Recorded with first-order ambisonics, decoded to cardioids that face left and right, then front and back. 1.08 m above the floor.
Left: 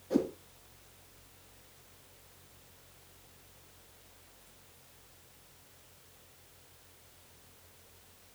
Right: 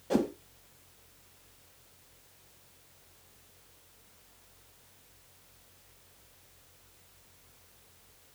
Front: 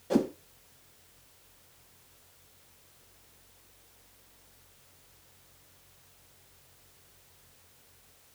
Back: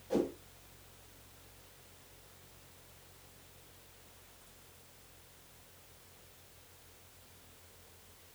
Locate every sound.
0.1 s a whoosh: 55° right, 1.6 m